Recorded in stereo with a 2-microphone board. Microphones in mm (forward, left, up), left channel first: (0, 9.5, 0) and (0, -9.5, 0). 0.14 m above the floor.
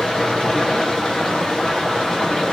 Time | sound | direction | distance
0.0 | running water | 35° left (ahead or behind) | 7 m